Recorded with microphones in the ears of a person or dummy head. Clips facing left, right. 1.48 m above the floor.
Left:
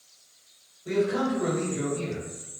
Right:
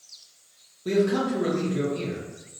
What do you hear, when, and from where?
0.8 s a man speaking: 60° right (ahead or behind), 0.8 m